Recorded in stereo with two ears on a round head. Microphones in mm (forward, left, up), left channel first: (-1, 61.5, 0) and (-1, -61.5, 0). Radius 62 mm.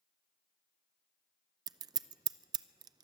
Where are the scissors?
30° right (ahead or behind), 0.5 m.